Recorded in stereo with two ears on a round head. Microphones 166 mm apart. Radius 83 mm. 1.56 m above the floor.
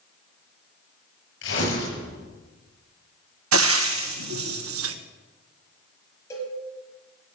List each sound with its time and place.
1.4 s tearing paper: 80° left, 9 m
3.5 s frying: 90° right, 1.3 m
6.3 s a cowbell: 15° left (ahead or behind), 6.5 m